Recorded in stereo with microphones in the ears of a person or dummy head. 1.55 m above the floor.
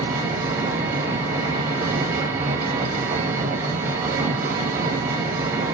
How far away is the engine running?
About 0.7 m.